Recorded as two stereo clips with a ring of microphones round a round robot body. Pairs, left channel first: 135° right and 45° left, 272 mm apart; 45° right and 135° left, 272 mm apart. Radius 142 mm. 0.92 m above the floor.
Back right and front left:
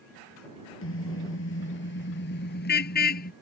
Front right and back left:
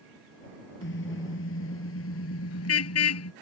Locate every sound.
0.8 s a car horn: 90° right; by 3.3 s 80° right